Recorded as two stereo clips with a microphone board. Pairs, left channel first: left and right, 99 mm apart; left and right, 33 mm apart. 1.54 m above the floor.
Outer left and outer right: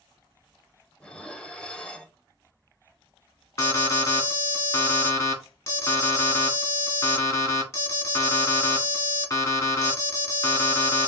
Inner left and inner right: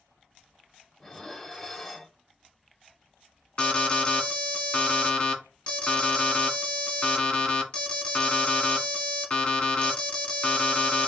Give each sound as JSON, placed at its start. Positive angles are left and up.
{"t": 1.0, "sound": "dishes clattering", "side_deg": 10, "distance_m": 0.8}
{"t": 3.6, "sound": "an alarm", "side_deg": 30, "distance_m": 1.4}